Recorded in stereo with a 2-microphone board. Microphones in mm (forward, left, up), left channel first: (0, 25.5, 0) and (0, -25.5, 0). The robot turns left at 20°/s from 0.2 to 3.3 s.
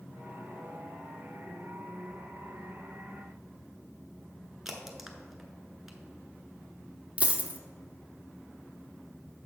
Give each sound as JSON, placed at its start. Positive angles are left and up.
{"t": 4.7, "sound": "a crack", "side_deg": -5, "distance_m": 0.9}
{"t": 7.2, "sound": "a dropped coin", "side_deg": -25, "distance_m": 0.6}